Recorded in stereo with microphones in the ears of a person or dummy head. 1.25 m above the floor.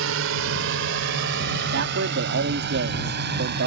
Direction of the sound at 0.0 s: 70° right (ahead or behind).